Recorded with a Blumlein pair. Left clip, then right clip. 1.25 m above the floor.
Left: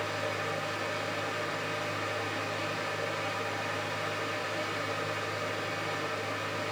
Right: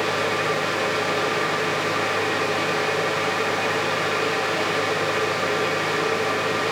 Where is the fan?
35° right, 0.9 m.